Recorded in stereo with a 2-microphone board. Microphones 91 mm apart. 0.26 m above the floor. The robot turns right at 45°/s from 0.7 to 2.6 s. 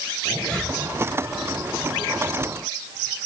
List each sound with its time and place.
0.2 s a zipper: 10° left (ahead or behind), 5.5 m